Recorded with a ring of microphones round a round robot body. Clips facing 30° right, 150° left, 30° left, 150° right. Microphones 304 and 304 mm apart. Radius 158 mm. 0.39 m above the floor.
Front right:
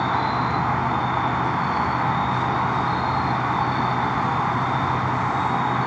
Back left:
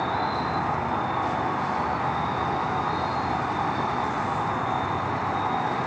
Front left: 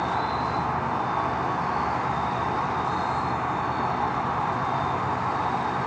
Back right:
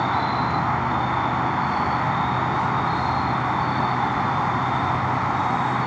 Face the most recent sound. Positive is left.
turn(degrees=-95)